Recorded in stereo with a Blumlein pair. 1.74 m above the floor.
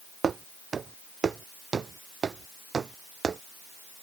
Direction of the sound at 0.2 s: 20° right.